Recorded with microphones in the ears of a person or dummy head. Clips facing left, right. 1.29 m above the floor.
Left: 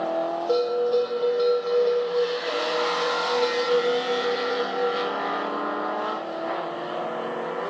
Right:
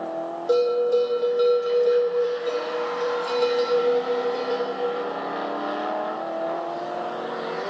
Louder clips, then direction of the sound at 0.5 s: Right 3 dB; 25° right (ahead or behind).